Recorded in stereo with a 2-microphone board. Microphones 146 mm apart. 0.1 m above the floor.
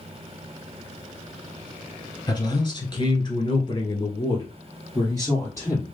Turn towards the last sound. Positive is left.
turn(degrees=20)  # may be behind; listen again after turning